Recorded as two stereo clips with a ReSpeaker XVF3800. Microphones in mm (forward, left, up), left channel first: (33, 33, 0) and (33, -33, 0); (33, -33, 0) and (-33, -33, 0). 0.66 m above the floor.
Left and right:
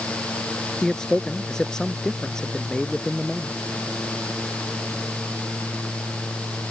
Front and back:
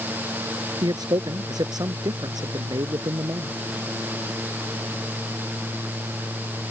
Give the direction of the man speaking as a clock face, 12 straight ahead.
6 o'clock.